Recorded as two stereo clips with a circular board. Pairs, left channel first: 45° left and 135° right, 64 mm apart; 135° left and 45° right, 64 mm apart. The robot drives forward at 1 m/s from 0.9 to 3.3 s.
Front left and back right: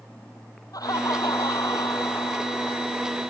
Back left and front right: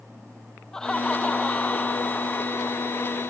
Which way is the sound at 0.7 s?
55° left.